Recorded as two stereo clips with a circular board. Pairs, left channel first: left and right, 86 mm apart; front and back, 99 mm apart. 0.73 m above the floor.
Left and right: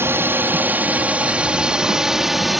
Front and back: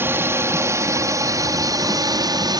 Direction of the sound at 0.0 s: 130° right.